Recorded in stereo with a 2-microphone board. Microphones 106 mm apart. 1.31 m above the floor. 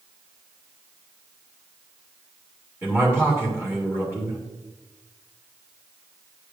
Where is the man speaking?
25° right (ahead or behind), 2 m.